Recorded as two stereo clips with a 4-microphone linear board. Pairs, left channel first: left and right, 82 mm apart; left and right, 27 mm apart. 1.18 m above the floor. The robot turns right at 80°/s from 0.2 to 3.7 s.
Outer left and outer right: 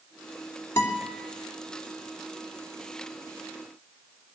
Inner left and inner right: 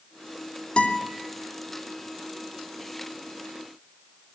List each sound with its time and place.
0.8 s a guitar: 30° left (ahead or behind), 3 m; by 1.1 s 55° left (ahead or behind), 3 m